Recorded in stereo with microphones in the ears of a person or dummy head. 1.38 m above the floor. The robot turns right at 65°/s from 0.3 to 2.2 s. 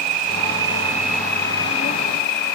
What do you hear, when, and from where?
0.0 s an insect: 55° right; by 2.5 s 65° left